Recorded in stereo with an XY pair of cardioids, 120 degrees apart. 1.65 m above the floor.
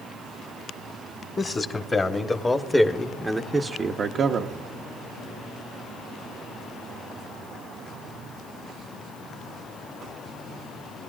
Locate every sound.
1.4 s a man speaking: 30° left, 1.4 m; by 4.6 s 75° right, 0.7 m